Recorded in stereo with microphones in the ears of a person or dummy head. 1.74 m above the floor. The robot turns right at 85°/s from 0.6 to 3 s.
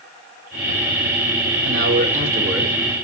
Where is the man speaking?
85° right, 6.5 m; by 2.7 s 5° left, 6.5 m.